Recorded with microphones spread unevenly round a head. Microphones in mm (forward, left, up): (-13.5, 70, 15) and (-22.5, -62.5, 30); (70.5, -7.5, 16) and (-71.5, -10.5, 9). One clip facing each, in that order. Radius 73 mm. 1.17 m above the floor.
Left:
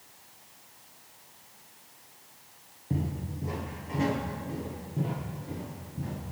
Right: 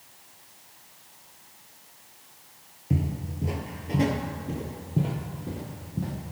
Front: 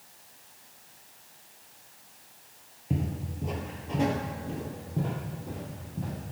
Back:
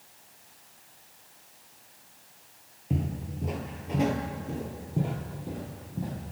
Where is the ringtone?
No ringtone in this recording.